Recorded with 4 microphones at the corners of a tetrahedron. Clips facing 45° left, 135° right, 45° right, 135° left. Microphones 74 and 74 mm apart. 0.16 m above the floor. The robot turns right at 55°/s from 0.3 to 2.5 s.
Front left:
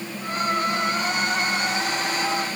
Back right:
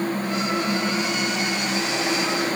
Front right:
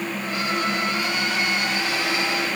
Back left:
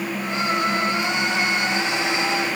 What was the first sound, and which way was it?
Only background noise.